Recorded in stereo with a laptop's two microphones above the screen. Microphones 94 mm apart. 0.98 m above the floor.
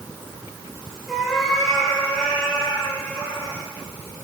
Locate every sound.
1.1 s a cat meowing: centre (ahead or behind), 7 m; by 3.6 s 15° left (ahead or behind), 9.5 m